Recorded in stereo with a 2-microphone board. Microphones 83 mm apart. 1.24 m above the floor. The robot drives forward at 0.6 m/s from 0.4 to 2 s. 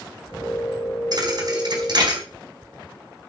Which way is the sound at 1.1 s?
50° right (ahead or behind).